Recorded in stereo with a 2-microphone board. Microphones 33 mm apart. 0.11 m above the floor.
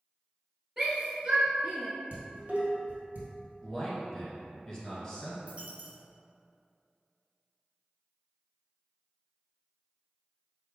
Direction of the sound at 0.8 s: 20° right (ahead or behind).